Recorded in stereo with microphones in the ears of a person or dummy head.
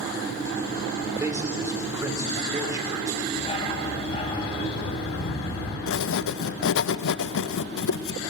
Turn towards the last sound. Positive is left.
turn(degrees=70)  # may be behind; listen again after turning